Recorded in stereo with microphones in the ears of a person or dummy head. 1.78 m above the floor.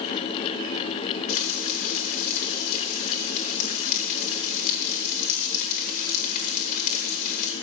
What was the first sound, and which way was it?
Frying, 55° left (ahead or behind).